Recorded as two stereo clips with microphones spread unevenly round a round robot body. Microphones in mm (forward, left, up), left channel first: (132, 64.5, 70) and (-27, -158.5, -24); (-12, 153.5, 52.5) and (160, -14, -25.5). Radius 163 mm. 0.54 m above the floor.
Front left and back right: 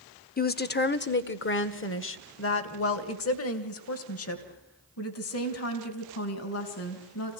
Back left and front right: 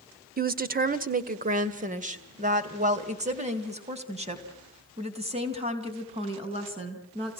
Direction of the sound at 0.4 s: 10° right.